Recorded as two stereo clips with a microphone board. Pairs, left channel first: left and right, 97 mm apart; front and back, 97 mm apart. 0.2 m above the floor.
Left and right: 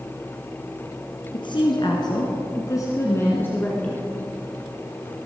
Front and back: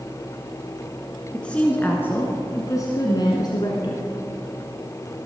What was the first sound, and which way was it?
A woman speaking, 80° left.